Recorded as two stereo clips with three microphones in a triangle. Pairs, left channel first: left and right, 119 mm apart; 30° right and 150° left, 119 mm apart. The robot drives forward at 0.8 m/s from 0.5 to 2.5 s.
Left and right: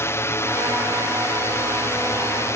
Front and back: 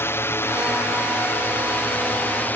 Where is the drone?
30° left; by 2.6 s 35° left.